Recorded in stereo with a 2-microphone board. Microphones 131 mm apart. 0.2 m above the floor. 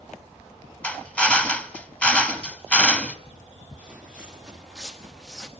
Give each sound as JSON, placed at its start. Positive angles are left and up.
{"t": 0.8, "sound": "a drill", "side_deg": 10, "distance_m": 1.2}
{"t": 3.8, "sound": "footsteps", "side_deg": -10, "distance_m": 5.5}